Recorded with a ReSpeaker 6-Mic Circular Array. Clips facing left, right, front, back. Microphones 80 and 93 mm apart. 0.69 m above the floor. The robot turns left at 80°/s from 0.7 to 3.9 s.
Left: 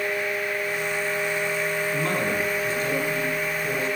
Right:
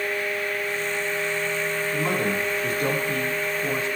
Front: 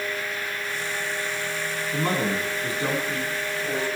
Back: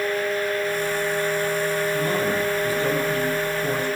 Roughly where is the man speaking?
Ahead.